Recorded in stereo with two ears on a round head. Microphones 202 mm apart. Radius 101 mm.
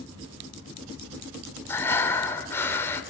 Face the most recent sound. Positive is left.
turn(degrees=10)  # may be behind; listen again after turning